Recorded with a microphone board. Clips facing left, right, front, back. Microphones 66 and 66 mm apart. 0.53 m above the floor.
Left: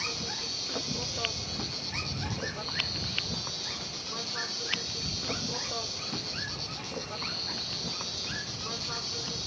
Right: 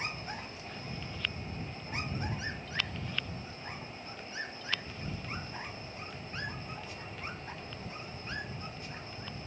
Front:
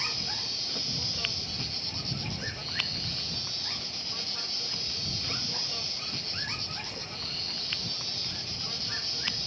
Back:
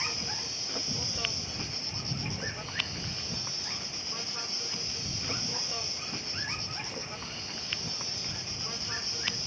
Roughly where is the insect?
Left.